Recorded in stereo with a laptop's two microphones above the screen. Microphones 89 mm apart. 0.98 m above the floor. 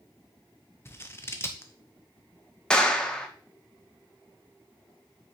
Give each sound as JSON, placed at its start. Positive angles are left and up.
{"t": 0.8, "sound": "scissors", "side_deg": 30, "distance_m": 0.7}
{"t": 2.7, "sound": "a clap", "side_deg": 10, "distance_m": 1.1}